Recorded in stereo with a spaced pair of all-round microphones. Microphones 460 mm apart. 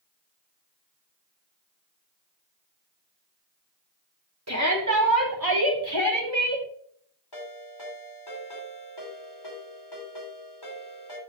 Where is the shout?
35° right (ahead or behind), 3 m; by 6.7 s 70° right (ahead or behind), 3 m.